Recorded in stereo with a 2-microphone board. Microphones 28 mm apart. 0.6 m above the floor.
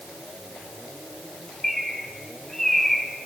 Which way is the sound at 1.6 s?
15° left (ahead or behind).